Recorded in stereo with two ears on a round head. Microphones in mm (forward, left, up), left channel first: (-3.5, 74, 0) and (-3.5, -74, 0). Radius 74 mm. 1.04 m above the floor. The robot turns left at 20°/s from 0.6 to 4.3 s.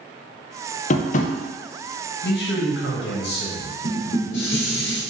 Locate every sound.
0.9 s tapping: 45° left (ahead or behind), 0.5 m
2.2 s a man speaking: 100° left, 1.2 m; by 3.7 s 70° left, 1.2 m
3.8 s dishes clattering: 80° left, 1.3 m